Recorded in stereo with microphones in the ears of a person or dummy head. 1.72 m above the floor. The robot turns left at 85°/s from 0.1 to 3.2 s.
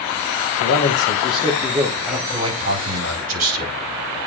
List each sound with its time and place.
0.6 s a man speaking: 90° left, 2.5 m; by 1.9 s 25° right, 2.5 m
2.0 s a man speaking: 10° left, 4.5 m; by 3.8 s 90° right, 4.5 m